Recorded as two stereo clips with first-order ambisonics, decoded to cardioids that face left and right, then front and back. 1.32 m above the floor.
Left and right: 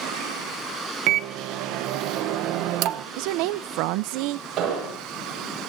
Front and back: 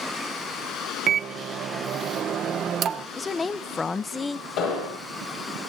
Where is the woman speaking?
75° right, 0.5 m.